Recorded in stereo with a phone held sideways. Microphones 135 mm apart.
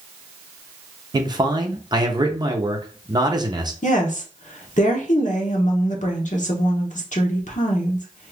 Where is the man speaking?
30° right (ahead or behind), 0.6 m.